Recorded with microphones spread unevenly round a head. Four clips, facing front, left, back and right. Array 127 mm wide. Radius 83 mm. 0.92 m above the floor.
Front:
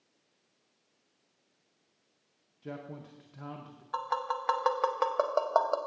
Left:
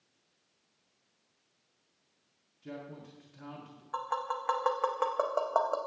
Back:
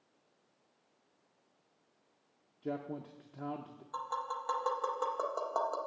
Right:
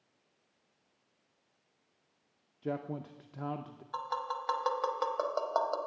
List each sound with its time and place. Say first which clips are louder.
2.6 s a man speaking: right 7 dB, back 3 dB; 100° right, 0.5 m
3.9 s tapping: left 2 dB, front 6 dB; 20° left, 0.8 m